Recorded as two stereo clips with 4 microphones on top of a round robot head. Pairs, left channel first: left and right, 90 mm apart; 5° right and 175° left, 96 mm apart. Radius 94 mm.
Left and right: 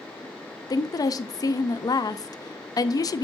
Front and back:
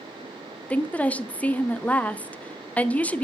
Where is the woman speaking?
65° left, 0.6 m.